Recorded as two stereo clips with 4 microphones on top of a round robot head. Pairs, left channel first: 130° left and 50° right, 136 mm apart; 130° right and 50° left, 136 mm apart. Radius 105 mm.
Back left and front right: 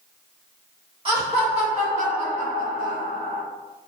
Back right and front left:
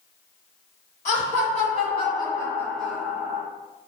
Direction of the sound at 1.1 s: 100° right.